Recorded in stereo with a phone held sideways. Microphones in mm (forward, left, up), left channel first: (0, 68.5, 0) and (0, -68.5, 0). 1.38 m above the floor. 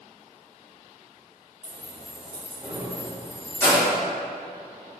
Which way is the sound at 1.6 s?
55° right (ahead or behind).